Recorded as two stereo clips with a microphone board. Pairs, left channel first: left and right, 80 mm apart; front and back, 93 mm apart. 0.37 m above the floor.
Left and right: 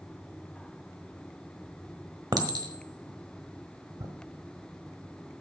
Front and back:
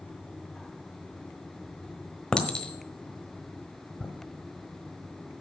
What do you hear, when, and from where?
2.3 s a clink: 80° right, 1.2 m